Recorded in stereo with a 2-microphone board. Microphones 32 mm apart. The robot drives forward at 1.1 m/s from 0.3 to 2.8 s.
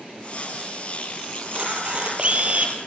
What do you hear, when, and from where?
1.4 s a camera shutter: 35° right (ahead or behind), 5.5 m; by 2.8 s 45° right (ahead or behind), 4 m